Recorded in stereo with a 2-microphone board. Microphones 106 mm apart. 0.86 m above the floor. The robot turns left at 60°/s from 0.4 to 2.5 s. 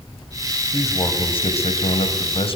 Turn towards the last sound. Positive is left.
turn(degrees=55)